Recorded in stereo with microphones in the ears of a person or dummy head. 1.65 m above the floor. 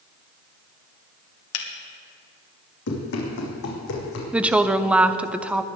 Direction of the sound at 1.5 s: 80° left.